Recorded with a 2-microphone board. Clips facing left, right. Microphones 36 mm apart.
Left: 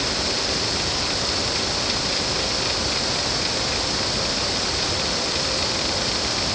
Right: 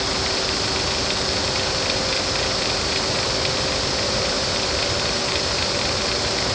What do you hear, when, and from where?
Only background noise.